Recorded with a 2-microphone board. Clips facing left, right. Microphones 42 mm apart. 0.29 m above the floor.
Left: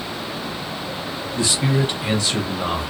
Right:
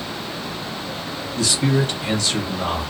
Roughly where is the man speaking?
Centre.